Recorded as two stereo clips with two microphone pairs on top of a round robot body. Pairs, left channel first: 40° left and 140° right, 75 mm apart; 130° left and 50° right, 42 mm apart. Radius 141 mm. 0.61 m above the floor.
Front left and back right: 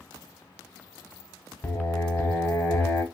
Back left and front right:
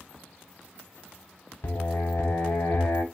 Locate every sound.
1.6 s singing: 105° left, 0.7 m